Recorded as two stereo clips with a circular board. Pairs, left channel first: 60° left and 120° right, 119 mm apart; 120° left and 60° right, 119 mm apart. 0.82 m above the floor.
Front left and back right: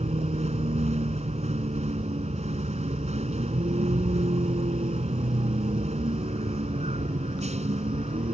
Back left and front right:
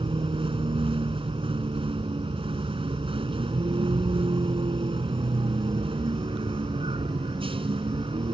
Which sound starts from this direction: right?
A vehicle, at 0.0 s.